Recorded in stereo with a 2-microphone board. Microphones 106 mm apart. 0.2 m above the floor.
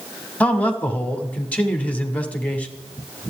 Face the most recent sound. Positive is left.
turn(degrees=15)  # may be behind; listen again after turning